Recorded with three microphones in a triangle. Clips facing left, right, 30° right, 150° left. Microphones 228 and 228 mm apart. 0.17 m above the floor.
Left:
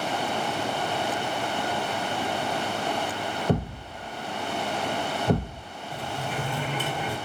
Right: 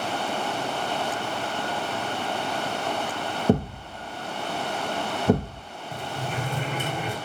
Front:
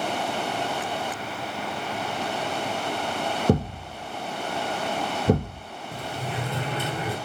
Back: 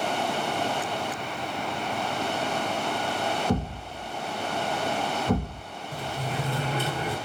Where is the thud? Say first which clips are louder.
Right 6 dB, front 5 dB; 30° right, 1.6 m.